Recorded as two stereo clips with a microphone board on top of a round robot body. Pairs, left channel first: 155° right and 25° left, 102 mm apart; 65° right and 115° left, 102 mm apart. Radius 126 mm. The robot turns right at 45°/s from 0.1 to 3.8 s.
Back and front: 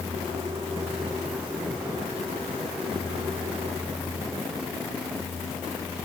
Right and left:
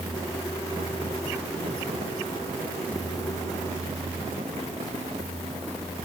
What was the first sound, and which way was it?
Only background noise.